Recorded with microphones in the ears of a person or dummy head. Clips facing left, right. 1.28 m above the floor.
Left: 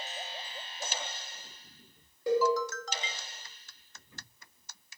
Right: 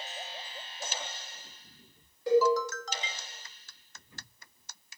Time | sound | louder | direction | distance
2.3 | a cowbell | right 3 dB | 75° left (ahead or behind) | 1.4 m